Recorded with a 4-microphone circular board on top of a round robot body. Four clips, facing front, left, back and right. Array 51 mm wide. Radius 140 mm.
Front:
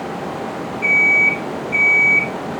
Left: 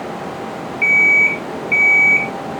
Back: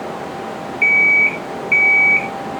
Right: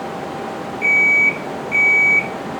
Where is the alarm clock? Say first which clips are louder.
Left 2 dB, back 1 dB; 145° left, 4 m.